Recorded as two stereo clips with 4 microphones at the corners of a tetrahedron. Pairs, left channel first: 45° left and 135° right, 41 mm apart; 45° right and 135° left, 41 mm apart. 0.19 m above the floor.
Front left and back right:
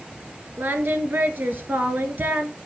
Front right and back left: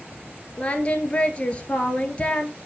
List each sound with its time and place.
0.6 s singing: 105° right, 1.1 m